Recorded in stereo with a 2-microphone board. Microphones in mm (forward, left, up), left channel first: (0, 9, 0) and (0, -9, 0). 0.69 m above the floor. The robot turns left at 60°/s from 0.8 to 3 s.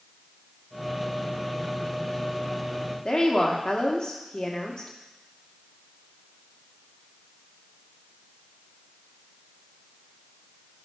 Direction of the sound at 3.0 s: 60° left (ahead or behind).